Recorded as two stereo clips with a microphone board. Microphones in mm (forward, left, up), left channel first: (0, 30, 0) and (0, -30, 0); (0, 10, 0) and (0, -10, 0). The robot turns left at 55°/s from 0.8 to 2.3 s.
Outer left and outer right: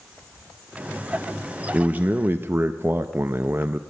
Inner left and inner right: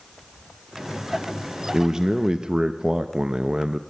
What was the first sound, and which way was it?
A man speaking, 35° right.